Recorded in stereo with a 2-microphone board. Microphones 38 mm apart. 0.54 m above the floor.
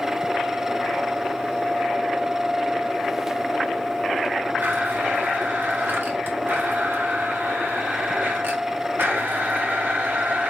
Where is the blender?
65° right (ahead or behind), 1.3 m.